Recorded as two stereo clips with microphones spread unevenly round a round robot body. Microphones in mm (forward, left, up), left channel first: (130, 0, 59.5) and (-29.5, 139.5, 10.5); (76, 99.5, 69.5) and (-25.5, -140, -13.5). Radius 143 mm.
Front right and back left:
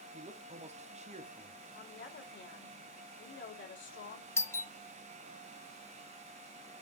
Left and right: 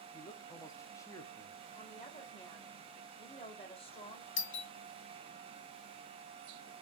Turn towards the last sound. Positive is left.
turn(degrees=50)